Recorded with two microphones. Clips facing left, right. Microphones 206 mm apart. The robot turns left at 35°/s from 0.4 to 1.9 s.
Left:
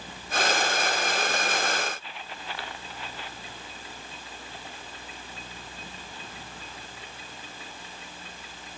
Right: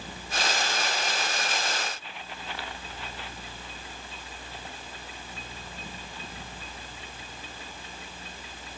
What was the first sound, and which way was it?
Only background noise.